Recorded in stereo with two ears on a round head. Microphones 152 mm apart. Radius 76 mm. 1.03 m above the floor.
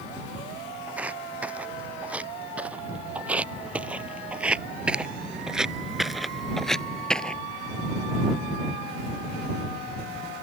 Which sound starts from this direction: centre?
Footsteps, at 0.9 s.